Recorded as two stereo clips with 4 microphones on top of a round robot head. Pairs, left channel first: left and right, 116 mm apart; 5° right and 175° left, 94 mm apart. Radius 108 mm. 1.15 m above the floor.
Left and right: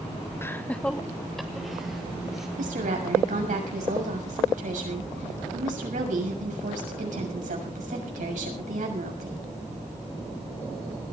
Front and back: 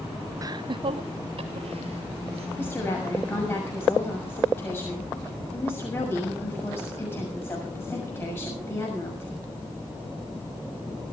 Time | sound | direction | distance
0.4 | laughter | 150° left | 0.6 m
2.6 | a woman speaking | 75° right | 6.5 m